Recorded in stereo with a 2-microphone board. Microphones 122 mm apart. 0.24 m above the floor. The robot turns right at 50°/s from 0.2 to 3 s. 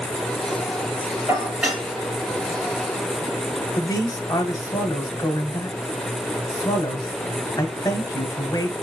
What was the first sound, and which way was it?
Dishes clattering, 25° right (ahead or behind).